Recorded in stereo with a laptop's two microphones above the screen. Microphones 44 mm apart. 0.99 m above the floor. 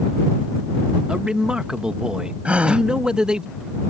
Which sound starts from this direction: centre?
A man speaking, at 1.1 s.